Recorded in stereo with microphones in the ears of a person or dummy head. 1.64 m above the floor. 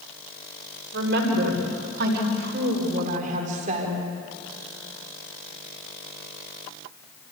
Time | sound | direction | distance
0.9 | a woman speaking | 65° right (ahead or behind) | 6 m